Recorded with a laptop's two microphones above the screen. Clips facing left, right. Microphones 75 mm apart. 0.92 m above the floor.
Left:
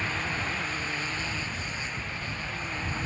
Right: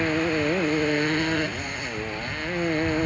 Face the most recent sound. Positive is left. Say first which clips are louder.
# right 9 dB
turn(degrees=-60)  # may be behind; listen again after turning